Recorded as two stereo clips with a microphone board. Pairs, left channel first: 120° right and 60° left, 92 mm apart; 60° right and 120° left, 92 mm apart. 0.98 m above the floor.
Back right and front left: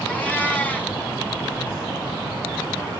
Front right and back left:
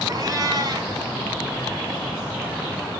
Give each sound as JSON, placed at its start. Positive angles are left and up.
{"t": 0.1, "sound": "a cat meowing", "azimuth_deg": 165, "distance_m": 3.0}